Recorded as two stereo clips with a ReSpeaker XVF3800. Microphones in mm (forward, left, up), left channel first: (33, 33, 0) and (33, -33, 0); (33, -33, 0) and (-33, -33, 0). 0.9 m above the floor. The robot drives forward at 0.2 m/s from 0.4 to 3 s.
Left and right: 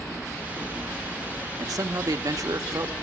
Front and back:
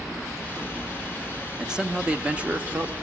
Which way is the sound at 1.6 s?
100° right.